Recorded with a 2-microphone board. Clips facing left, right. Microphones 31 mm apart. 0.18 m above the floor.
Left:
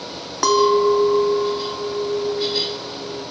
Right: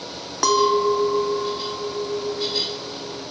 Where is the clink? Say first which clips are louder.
Left 3 dB; 5° left (ahead or behind), 0.6 m.